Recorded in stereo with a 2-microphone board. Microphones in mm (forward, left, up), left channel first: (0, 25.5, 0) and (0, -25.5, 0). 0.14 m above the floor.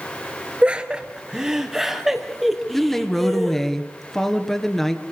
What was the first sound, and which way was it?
Laughter, 25° right (ahead or behind).